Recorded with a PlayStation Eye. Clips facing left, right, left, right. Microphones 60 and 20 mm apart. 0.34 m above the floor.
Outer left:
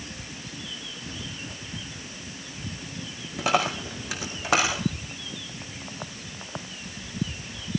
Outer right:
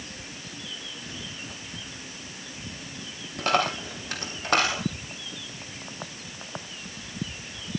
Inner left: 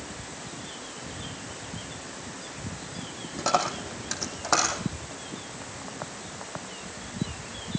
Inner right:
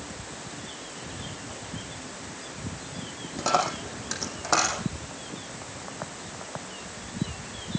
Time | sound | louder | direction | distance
3.4 | a dropped coin | even, inner right 1 dB | 5° left (ahead or behind) | 3.5 m